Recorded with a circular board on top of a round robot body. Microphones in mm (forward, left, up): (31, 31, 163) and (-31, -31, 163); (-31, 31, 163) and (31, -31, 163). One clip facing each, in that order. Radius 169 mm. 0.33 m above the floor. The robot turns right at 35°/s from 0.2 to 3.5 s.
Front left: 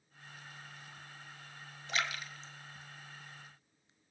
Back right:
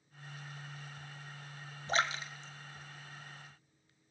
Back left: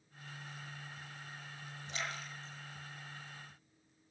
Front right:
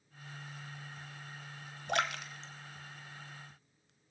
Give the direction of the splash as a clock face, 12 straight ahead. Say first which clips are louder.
Back right 4 dB, front right 9 dB; 3 o'clock.